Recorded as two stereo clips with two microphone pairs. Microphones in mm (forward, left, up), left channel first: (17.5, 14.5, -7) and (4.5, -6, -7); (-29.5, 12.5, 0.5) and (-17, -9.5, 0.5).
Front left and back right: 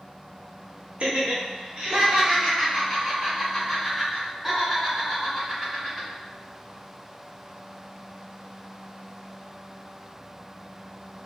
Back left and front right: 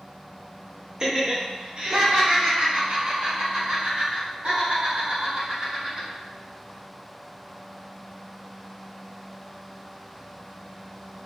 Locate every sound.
1.0 s laughter: 115° right, 1.0 m; by 6.1 s 45° right, 4 m